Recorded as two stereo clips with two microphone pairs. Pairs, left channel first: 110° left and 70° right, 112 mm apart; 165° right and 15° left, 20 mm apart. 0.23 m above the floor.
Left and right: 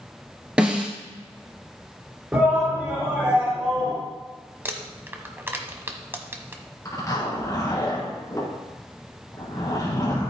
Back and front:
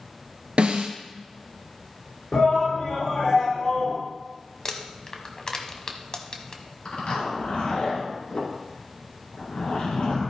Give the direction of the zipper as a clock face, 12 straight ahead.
6 o'clock.